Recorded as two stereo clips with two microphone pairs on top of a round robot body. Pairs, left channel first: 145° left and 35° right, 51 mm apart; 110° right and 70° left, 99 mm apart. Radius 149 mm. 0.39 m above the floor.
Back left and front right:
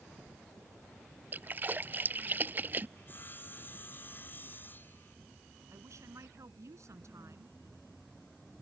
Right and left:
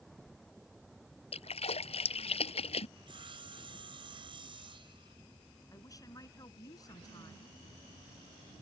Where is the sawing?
95° left.